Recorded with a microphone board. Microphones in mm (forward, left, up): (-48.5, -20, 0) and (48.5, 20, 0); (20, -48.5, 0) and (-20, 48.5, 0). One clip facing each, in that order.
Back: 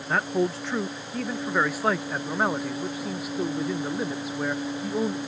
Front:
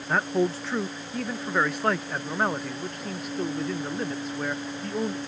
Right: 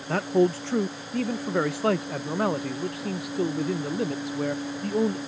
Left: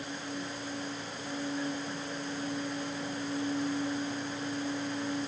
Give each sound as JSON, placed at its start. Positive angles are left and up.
{"t": 0.1, "sound": "a man speaking", "azimuth_deg": -65}